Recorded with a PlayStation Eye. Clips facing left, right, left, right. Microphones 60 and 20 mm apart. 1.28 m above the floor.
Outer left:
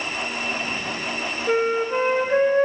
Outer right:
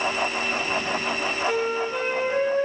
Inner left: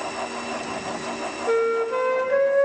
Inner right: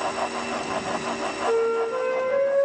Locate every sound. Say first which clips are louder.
1.5 s a flute: outer left 7 dB, inner left 2 dB; 40° left (ahead or behind), 1.3 m